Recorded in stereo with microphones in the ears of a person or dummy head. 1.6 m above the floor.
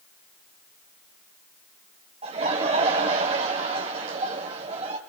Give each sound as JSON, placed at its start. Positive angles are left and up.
{"t": 2.2, "sound": "laughter", "side_deg": -35, "distance_m": 1.2}